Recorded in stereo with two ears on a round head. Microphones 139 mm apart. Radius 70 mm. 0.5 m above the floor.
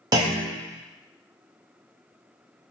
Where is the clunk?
25° right (ahead or behind), 0.7 m.